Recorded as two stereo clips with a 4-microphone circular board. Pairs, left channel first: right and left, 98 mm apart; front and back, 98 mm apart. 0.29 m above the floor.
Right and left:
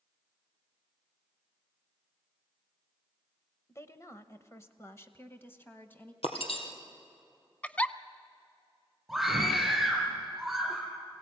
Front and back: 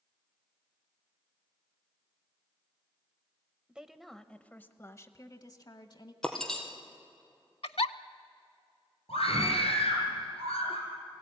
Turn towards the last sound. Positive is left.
turn(degrees=0)